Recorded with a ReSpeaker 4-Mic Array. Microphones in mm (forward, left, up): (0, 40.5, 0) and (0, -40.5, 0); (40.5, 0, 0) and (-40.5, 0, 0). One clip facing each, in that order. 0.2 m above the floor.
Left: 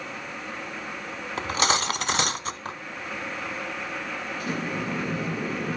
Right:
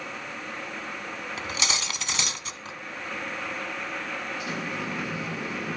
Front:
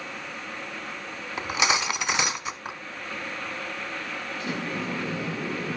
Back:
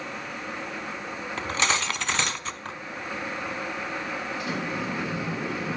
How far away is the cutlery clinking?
About 0.9 m.